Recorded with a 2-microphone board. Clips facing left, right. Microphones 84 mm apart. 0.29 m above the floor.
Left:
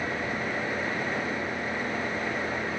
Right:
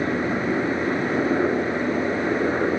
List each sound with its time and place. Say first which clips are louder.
0.0 s a helicopter: right 7 dB; 65° right (ahead or behind); by 2.8 s 70° right (ahead or behind)